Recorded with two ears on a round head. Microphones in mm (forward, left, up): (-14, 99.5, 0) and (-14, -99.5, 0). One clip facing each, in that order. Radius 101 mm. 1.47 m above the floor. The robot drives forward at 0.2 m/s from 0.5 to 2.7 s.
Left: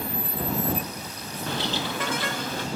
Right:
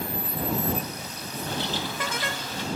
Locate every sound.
1.5 s a bird: 60° left (ahead or behind), 0.6 m; by 2.7 s 45° left (ahead or behind), 0.7 m